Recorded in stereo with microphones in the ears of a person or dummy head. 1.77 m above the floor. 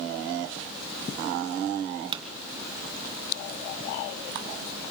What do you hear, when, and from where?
2.1 s a pop: 25° right (ahead or behind), 2.5 m